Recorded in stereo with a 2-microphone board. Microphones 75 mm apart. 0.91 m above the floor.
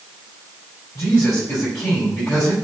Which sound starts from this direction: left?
A man speaking, at 0.9 s.